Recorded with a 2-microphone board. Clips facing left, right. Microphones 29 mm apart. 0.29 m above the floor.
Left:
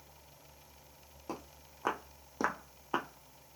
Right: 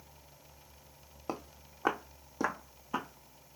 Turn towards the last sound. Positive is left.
turn(degrees=45)  # may be behind; listen again after turning